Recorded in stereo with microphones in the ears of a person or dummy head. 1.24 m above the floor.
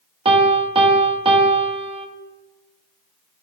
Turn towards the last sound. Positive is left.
turn(degrees=-25)  # may be behind; listen again after turning